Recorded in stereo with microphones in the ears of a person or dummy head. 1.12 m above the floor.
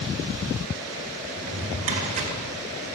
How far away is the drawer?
About 1.3 m.